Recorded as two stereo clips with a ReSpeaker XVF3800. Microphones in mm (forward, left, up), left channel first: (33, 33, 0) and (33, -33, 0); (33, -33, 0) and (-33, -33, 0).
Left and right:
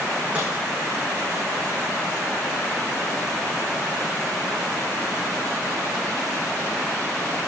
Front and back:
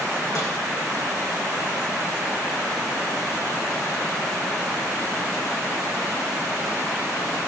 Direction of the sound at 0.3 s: 25° right.